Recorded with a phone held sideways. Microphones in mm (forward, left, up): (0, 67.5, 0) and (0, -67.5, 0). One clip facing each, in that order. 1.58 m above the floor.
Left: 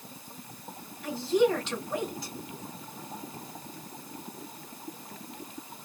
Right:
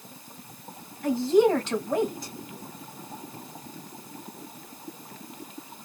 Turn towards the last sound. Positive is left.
turn(degrees=-50)  # may be behind; listen again after turning